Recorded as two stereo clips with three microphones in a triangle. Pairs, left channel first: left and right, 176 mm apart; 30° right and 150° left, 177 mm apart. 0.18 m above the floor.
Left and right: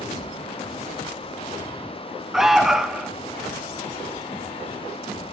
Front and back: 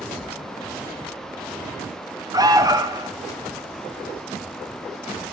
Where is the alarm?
175° right, 0.8 m.